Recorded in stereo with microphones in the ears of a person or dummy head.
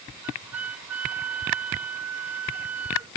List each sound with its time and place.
0.2 s a flute: 5° right (ahead or behind)